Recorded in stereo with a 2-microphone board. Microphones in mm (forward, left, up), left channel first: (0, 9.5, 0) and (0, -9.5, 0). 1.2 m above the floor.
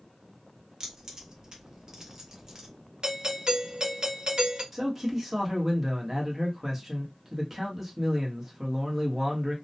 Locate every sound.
0.8 s keys jangling: 40° right (ahead or behind), 0.9 m
3.0 s a doorbell: 50° right (ahead or behind), 0.8 m
4.7 s a man speaking: 20° right (ahead or behind), 1.0 m